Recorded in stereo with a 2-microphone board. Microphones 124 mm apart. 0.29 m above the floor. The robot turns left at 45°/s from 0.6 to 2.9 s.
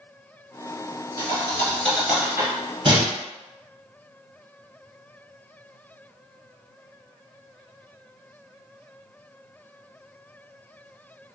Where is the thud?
40° left (ahead or behind), 1.2 m; by 3.1 s 40° right (ahead or behind), 1.2 m.